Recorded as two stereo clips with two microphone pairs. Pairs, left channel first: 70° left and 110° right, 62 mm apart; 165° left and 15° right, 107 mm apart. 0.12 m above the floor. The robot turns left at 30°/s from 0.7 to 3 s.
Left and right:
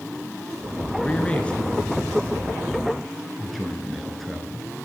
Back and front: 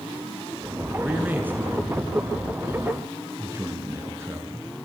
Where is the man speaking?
45° left, 1.1 m; by 4.7 s 15° right, 1.1 m.